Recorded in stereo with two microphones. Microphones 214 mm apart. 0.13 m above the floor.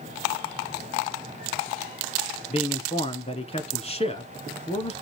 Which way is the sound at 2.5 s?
30° left (ahead or behind).